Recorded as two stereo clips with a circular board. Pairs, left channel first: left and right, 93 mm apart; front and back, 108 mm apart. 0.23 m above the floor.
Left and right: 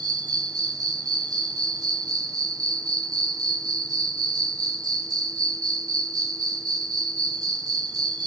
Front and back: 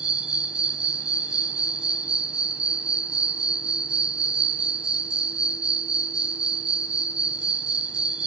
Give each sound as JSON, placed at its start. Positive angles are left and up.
{"t": 0.0, "sound": "an insect", "azimuth_deg": -105, "distance_m": 0.9}